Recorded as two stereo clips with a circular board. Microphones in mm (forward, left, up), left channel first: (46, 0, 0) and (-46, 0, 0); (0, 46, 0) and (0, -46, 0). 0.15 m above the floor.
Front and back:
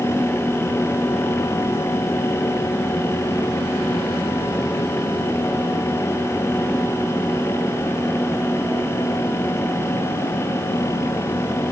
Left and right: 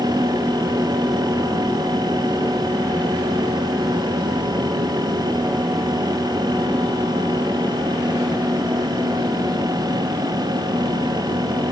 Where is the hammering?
I don't hear hammering.